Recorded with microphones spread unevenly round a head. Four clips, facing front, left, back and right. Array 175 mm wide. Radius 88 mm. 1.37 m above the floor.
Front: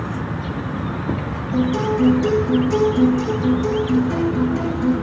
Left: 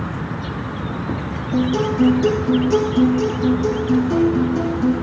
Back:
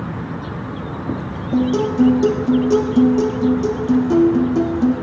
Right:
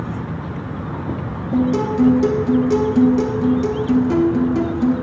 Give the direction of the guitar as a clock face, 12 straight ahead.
5 o'clock.